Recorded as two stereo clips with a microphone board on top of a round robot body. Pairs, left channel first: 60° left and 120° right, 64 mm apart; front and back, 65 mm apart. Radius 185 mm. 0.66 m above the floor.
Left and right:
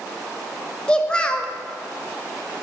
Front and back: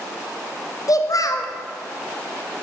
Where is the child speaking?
15° right, 0.9 m.